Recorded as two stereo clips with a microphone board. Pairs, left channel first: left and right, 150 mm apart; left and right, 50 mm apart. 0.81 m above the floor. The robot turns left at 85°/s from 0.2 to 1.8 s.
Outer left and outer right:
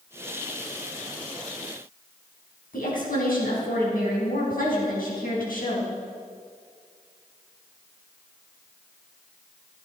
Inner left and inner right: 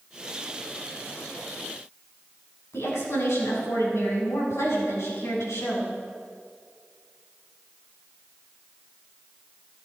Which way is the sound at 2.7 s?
85° left.